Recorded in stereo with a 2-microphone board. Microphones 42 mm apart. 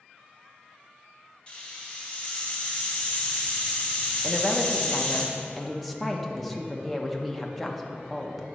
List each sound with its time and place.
1.5 s a hiss: 25° left (ahead or behind), 1.5 m
4.2 s a woman speaking: 5° left (ahead or behind), 0.7 m